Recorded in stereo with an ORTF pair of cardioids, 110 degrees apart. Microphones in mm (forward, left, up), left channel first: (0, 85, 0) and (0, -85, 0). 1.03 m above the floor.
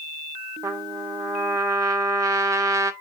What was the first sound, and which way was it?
A trumpet, 20° right.